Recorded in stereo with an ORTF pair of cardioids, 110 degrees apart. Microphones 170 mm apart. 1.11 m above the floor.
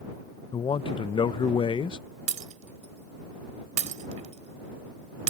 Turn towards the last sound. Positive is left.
turn(degrees=-45)